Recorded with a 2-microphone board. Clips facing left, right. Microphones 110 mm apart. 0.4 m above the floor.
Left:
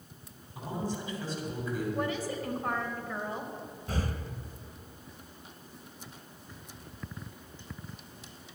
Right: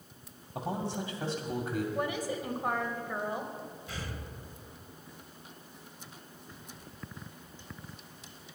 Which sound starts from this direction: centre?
A woman speaking, at 1.9 s.